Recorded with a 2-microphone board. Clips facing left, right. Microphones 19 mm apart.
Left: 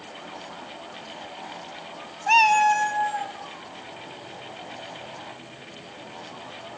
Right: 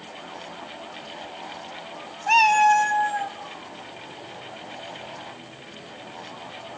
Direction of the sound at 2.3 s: 5° left (ahead or behind).